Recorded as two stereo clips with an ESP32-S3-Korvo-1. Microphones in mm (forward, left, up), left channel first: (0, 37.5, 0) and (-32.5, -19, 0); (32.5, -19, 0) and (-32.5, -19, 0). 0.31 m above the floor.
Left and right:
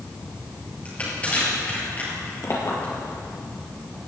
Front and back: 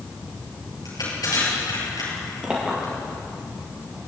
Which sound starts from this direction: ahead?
Crushing, at 0.8 s.